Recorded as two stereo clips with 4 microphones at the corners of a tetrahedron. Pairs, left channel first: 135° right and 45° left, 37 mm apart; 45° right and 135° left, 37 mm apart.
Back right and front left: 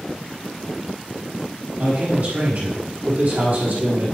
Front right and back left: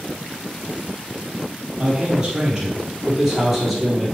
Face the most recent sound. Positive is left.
turn(degrees=45)